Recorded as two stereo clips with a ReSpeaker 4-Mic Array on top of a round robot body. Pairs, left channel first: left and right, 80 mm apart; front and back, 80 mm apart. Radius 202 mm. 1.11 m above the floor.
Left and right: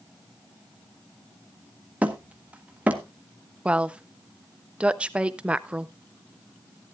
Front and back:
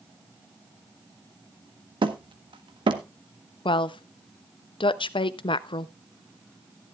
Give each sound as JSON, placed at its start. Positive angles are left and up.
{"t": 2.0, "sound": "hammering", "azimuth_deg": -165, "distance_m": 1.1}
{"t": 3.6, "sound": "a woman speaking", "azimuth_deg": -15, "distance_m": 0.6}